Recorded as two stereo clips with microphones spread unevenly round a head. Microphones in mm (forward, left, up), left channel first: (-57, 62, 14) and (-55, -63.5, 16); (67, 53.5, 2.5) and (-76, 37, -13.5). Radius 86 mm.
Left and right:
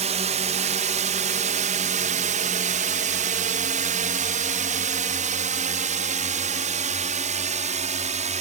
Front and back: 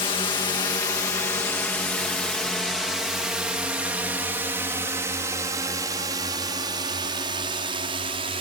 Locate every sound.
0.0 s a drone: 55° right; by 8.4 s 115° right